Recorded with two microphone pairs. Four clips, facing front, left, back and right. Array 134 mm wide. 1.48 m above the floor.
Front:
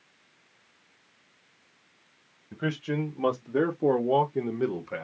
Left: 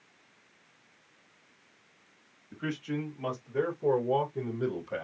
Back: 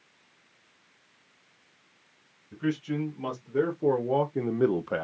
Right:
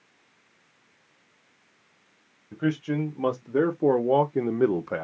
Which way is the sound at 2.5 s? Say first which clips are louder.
Right 8 dB, back 1 dB; 50° right.